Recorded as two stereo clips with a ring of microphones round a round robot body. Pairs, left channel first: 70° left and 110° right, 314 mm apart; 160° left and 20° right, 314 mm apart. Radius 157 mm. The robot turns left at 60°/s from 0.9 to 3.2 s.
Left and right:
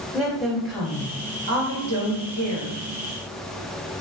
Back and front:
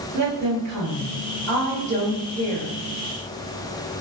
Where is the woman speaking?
25° right, 1.1 m; by 2.8 s 135° right, 1.1 m.